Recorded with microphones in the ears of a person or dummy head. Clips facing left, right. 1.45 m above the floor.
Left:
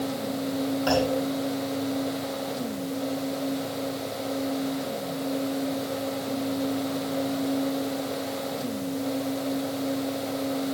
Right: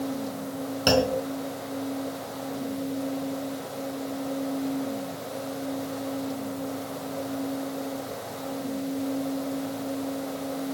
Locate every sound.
0.9 s a clunk: 50° right (ahead or behind), 4 m